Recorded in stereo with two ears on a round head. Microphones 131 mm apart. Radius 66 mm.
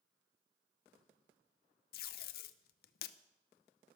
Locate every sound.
1.9 s tape being pulled: 70° left (ahead or behind), 0.5 m